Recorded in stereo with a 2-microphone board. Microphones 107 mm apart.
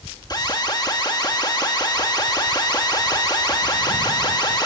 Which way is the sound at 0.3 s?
40° left (ahead or behind).